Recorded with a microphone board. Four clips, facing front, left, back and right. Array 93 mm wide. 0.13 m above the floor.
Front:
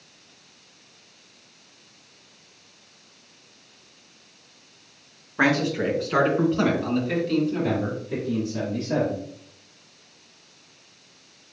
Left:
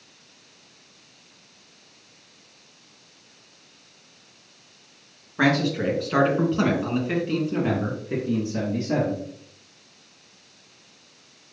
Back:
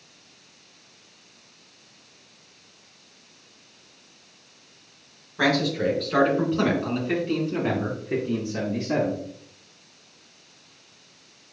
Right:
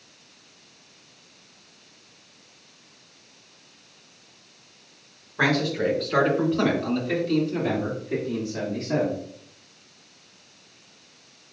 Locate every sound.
5.4 s a man speaking: 10° left, 1.9 m; by 9.2 s 145° left, 2.5 m